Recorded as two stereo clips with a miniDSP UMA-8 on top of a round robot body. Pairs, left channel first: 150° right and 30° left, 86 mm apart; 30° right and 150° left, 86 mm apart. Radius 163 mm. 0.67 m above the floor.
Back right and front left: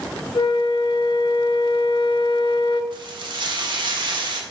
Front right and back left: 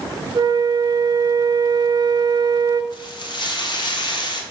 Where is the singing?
No singing in this recording.